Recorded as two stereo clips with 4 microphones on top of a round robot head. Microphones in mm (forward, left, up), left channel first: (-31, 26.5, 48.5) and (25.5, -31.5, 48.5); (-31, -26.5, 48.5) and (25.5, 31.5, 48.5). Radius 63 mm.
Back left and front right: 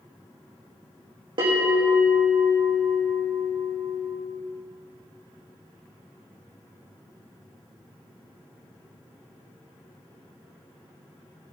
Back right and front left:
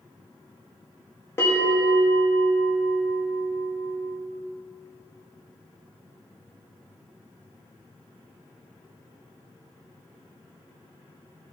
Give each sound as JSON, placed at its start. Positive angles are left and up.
{"t": 1.4, "sound": "a bell", "azimuth_deg": -70, "distance_m": 5.5}